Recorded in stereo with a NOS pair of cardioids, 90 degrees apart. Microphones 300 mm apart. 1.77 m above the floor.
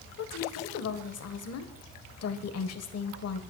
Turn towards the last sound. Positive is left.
turn(degrees=55)